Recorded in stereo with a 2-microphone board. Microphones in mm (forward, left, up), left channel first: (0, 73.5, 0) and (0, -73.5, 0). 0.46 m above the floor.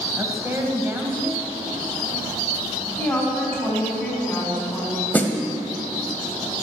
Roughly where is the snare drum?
Centre.